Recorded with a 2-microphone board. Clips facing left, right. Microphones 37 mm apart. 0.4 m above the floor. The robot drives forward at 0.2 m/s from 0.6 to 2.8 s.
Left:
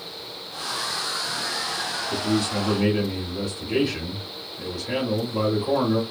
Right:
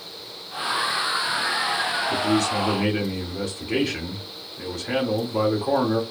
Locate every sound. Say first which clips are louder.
2.1 s a man speaking: right 1 dB; 70° right (ahead or behind), 2.0 m; by 6.0 s 65° right (ahead or behind), 2.0 m